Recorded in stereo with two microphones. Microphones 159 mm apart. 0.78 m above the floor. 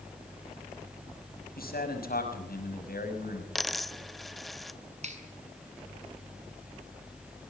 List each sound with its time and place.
1.6 s a man speaking: 80° left, 6 m
3.5 s a dropped coin: centre (ahead or behind), 0.7 m
5.0 s a finger snap: 45° right (ahead or behind), 7 m